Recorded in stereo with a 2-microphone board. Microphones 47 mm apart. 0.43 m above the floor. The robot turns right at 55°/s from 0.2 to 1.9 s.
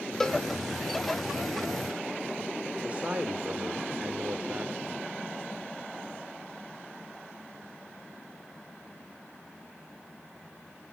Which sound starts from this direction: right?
A man speaking, at 2.8 s.